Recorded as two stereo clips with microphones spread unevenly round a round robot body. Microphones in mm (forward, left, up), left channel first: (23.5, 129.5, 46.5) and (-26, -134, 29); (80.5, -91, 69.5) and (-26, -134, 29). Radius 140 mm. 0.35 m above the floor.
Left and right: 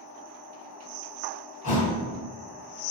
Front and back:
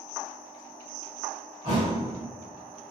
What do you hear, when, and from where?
1.6 s a thud: 115° left, 1.1 m